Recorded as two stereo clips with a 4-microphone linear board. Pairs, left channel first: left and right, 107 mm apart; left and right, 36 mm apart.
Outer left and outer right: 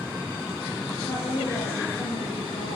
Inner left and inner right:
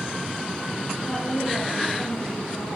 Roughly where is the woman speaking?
Left.